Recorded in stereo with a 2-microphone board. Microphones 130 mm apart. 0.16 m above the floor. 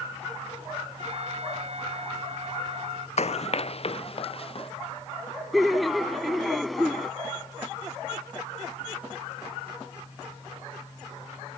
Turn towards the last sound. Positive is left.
turn(degrees=0)  # may be behind; listen again after turning